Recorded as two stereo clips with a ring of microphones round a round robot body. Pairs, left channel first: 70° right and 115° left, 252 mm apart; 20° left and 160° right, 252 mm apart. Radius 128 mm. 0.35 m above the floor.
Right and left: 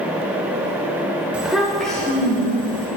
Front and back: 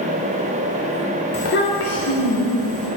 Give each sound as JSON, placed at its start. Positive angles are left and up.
{"t": 1.3, "sound": "a child speaking", "azimuth_deg": 35, "distance_m": 0.6}